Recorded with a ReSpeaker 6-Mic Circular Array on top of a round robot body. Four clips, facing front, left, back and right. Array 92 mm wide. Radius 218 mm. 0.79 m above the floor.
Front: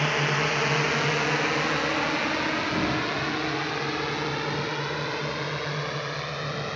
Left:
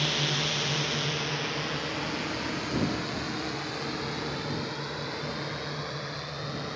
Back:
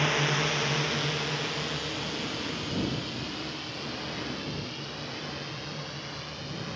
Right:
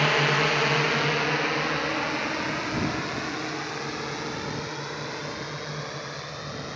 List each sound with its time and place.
0.0 s a drone: 80° right; by 6.8 s 5° right